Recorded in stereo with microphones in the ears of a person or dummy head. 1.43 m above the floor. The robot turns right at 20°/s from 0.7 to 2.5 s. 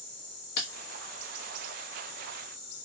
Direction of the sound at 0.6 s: 55° left (ahead or behind).